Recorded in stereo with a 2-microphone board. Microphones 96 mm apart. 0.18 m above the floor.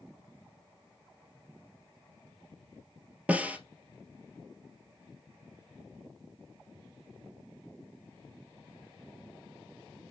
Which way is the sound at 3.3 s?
15° right (ahead or behind).